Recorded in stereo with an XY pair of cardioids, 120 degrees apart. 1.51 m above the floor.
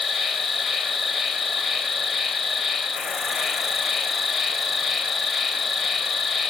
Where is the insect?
40° left, 0.9 m.